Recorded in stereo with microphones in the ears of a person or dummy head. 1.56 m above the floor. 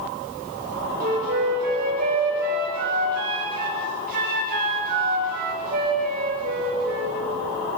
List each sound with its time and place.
1.0 s a flute: 50° right (ahead or behind), 7.5 m